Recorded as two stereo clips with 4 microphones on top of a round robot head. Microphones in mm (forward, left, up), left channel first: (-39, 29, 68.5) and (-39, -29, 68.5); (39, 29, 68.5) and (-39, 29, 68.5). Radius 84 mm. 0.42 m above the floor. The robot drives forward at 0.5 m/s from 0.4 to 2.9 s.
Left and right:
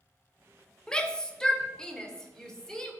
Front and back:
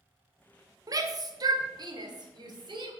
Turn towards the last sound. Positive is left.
turn(degrees=170)